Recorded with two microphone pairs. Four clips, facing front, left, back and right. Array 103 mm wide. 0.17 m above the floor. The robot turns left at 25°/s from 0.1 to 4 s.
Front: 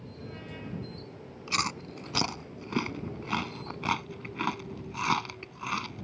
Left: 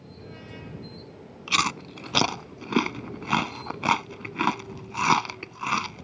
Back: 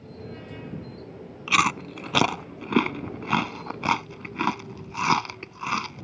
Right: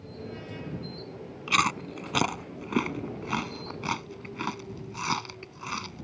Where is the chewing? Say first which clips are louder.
Right 1 dB, back 10 dB; 170° right; by 6.0 s 130° left.